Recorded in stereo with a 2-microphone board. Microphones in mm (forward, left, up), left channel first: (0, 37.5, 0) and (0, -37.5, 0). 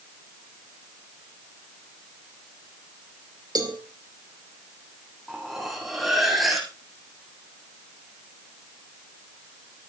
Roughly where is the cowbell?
Right.